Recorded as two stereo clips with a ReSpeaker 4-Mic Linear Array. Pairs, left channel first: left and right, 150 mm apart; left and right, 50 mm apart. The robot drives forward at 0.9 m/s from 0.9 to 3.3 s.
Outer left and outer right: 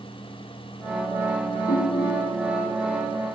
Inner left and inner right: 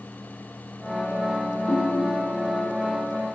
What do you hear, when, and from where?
1.7 s a ringtone: 70° left (ahead or behind), 2.5 m; by 2.4 s 65° left (ahead or behind), 3 m